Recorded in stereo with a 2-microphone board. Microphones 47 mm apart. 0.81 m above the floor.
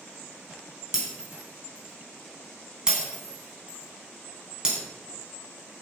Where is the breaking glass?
15° right (ahead or behind), 3 m.